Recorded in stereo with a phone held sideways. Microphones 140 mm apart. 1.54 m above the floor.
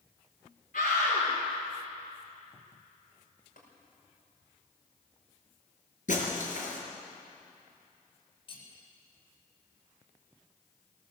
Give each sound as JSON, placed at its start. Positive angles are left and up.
{"t": 0.7, "sound": "a scream", "side_deg": 85, "distance_m": 5.0}
{"t": 3.6, "sound": "tapping", "side_deg": 80, "distance_m": 5.5}
{"t": 6.1, "sound": "breaking glass", "side_deg": 65, "distance_m": 4.5}
{"t": 8.5, "sound": "cutlery clinking", "side_deg": 40, "distance_m": 4.5}